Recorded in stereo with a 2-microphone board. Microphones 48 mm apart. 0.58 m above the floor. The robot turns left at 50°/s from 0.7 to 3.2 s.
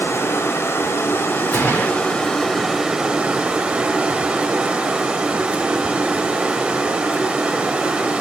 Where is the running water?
105° left, 1.1 m; by 8.2 s 20° right, 1.1 m.